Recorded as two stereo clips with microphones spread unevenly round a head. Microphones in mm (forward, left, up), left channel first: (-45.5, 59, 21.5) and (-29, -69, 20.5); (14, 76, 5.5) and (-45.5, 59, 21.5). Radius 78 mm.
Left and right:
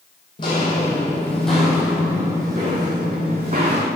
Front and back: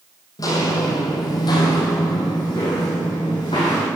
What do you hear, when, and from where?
0.4 s footsteps: 40° left, 2 m; by 3.9 s 35° right, 3 m